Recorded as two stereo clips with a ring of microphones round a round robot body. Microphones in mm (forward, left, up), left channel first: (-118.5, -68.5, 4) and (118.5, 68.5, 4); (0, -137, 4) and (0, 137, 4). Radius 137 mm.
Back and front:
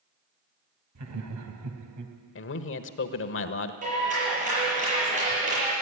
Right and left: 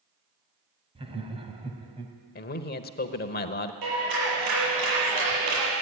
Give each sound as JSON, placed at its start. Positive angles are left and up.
{"t": 0.9, "sound": "laughter", "azimuth_deg": 20, "distance_m": 2.5}
{"t": 2.4, "sound": "a man speaking", "azimuth_deg": -130, "distance_m": 1.2}
{"t": 3.8, "sound": "a clap", "azimuth_deg": 95, "distance_m": 9.5}